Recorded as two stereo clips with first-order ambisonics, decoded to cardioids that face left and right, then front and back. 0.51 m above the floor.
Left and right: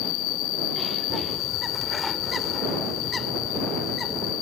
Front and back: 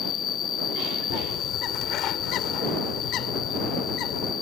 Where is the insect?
60° left.